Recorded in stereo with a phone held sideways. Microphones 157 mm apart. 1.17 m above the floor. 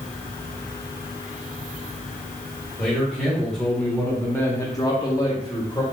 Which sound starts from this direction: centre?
A man speaking, at 2.8 s.